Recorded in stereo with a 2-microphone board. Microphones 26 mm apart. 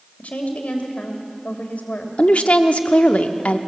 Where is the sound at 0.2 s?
75° left (ahead or behind), 2.5 m.